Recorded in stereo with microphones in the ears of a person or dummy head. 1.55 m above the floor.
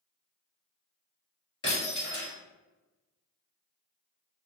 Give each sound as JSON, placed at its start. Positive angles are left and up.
{"t": 1.6, "sound": "breaking glass", "side_deg": 25, "distance_m": 1.8}